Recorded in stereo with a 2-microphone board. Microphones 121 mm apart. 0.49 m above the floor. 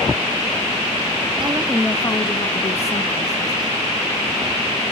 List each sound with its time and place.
1.4 s a woman speaking: 35° right (ahead or behind), 0.9 m; by 3.8 s 65° left (ahead or behind), 3 m